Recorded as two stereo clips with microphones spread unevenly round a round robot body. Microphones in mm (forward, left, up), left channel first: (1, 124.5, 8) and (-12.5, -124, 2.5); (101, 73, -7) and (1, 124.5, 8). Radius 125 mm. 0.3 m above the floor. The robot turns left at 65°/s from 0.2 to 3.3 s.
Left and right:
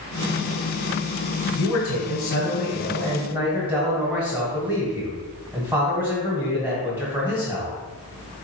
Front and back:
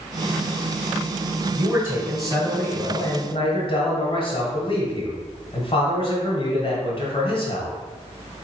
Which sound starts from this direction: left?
A man speaking, at 1.6 s.